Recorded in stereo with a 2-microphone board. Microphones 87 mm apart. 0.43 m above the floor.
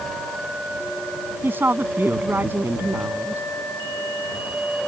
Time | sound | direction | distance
1.4 | a woman speaking | 25° right (ahead or behind) | ?